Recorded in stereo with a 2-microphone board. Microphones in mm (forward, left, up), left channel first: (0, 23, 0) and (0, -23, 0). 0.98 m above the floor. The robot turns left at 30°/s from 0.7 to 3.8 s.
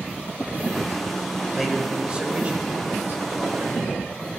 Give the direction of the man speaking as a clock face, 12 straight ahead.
12 o'clock.